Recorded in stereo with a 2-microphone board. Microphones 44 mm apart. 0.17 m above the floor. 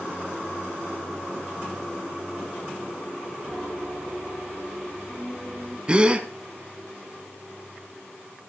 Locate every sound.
3.5 s a piano: 20° right (ahead or behind), 3 m
5.9 s a gasp: 25° right (ahead or behind), 1.4 m